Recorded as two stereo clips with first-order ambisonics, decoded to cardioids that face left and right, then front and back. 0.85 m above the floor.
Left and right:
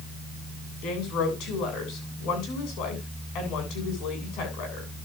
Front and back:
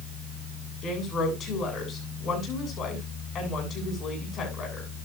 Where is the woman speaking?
60° left, 8.5 m.